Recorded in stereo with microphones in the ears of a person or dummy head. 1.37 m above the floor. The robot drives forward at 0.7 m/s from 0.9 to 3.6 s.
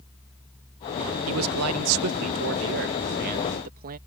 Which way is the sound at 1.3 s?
75° right (ahead or behind).